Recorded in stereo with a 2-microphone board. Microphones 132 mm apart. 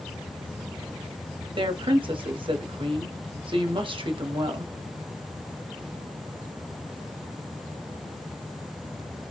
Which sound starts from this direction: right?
A woman speaking, at 1.6 s.